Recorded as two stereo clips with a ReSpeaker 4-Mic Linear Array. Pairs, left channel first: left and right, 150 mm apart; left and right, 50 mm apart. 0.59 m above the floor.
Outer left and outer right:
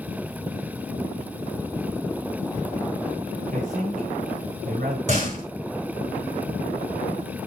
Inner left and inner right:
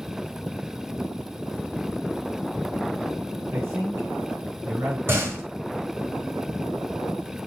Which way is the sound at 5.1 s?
50° right (ahead or behind).